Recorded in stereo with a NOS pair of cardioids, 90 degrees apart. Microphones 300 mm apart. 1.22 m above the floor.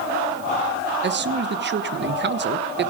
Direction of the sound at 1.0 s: 40° right.